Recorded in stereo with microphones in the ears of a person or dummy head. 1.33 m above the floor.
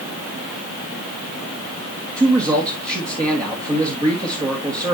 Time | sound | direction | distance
2.2 | a man speaking | 25° right (ahead or behind) | 1.8 m